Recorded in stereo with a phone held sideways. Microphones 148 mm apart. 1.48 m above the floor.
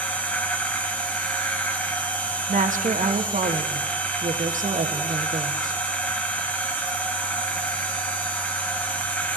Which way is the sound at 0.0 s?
10° left (ahead or behind).